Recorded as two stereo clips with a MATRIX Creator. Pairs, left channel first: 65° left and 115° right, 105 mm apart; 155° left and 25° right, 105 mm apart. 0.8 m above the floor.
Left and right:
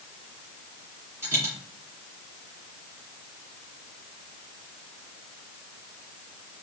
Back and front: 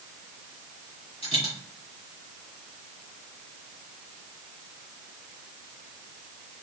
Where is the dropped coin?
175° right, 2.5 m.